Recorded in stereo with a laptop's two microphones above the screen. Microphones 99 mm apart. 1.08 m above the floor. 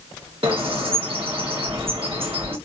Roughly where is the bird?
Right.